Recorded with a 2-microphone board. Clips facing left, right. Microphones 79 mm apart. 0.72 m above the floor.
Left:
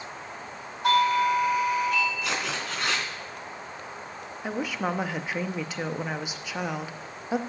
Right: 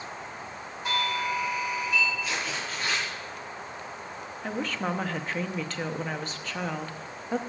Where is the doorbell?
65° left (ahead or behind), 5.5 m.